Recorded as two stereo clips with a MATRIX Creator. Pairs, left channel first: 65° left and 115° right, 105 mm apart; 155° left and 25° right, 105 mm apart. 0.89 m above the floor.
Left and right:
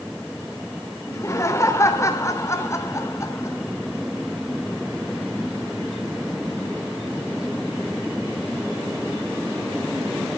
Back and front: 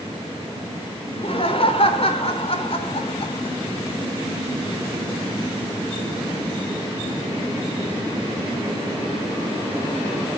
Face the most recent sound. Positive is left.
turn(degrees=130)